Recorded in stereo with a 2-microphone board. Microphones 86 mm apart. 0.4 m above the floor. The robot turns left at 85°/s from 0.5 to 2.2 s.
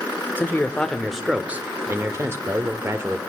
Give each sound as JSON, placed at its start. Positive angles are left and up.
{"t": 0.4, "sound": "a man speaking", "side_deg": 25, "distance_m": 0.8}